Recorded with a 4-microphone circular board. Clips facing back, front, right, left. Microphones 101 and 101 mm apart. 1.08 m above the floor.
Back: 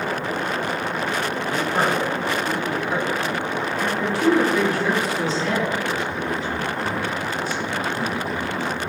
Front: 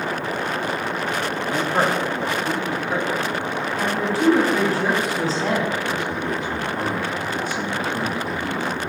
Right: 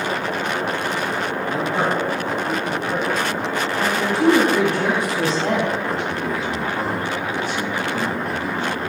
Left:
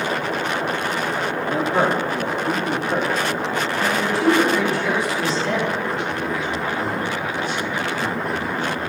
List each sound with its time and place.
1.4 s a man speaking: 55° left, 3 m; by 4.1 s 85° left, 3.5 m
3.8 s a woman speaking: 45° right, 3 m
5.9 s a man speaking: 40° right, 2 m